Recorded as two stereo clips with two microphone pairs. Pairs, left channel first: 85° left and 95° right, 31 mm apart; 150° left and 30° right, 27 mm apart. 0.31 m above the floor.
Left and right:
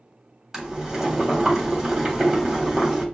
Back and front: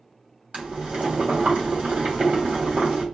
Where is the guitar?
No guitar in this recording.